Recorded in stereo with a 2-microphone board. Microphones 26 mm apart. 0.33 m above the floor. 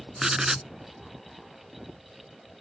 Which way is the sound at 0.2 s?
25° right (ahead or behind).